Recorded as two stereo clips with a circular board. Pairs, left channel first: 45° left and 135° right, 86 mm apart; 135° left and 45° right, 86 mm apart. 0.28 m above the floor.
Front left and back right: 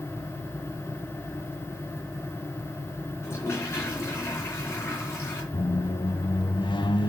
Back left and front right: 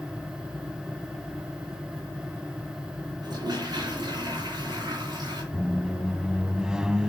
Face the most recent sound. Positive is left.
turn(degrees=35)